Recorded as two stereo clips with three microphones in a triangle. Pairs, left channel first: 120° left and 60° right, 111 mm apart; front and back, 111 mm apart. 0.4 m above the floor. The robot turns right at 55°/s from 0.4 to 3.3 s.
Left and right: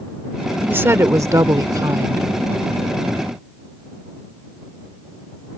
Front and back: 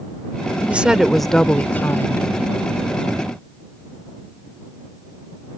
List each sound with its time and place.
0.7 s a woman speaking: 115° right; by 2.3 s 30° right